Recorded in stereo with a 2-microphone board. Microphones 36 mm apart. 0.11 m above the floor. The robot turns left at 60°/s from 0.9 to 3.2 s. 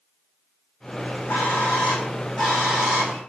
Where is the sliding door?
I don't hear a sliding door.